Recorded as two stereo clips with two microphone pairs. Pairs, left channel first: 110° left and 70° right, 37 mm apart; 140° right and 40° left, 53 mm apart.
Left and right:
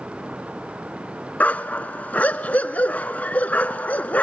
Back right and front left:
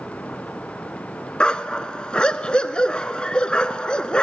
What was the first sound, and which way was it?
A dog barking, 150° left.